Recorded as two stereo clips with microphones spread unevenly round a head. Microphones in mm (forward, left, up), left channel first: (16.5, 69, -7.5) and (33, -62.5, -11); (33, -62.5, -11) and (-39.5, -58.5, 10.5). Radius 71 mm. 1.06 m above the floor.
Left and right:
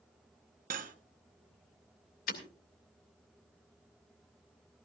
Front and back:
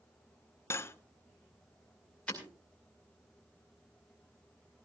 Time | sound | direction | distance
0.7 | cutlery clinking | 60° right | 0.9 m
2.3 | breaking glass | 80° left | 2.5 m